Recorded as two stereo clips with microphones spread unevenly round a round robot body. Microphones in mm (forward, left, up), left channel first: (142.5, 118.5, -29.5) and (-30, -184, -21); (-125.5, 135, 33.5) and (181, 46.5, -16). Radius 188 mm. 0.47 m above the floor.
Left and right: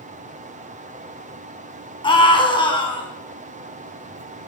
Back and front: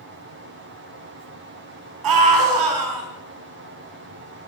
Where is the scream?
15° right, 4.5 m.